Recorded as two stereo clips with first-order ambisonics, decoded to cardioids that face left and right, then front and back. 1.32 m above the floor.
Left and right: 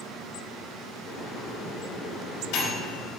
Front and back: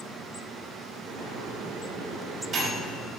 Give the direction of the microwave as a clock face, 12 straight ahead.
8 o'clock.